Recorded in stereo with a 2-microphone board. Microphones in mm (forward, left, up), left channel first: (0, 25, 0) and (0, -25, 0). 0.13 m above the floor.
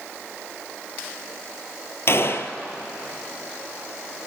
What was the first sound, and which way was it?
A gunshot, 50° left (ahead or behind).